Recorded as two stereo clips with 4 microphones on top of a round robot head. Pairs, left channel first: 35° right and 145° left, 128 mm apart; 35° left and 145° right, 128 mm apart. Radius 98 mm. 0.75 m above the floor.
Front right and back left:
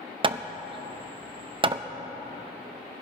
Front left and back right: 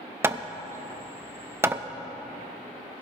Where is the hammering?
150° left, 0.7 m.